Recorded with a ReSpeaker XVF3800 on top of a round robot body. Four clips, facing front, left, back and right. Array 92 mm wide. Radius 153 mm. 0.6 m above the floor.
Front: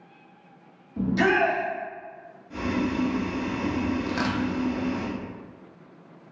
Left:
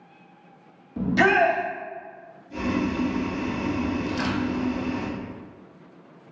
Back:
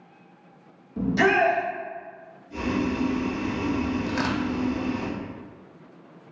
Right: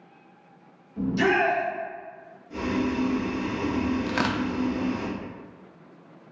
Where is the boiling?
25° right, 1.8 m.